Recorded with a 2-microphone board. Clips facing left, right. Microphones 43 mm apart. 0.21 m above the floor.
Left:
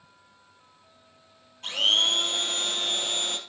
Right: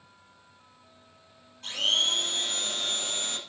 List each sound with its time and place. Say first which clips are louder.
1.6 s a blender: left 3 dB; 35° left (ahead or behind), 3.5 m